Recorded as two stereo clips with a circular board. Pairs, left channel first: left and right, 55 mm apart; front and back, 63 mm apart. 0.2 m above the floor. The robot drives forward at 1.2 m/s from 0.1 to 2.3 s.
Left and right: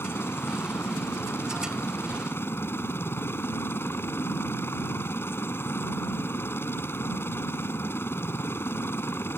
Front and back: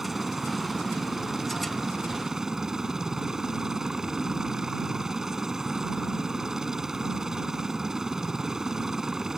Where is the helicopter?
95° left; by 9.4 s 100° left.